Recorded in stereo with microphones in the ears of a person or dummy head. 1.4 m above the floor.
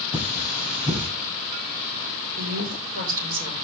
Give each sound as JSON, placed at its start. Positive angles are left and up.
{"t": 0.1, "sound": "cutlery clinking", "side_deg": -5, "distance_m": 8.5}
{"t": 2.4, "sound": "a woman speaking", "side_deg": -45, "distance_m": 5.5}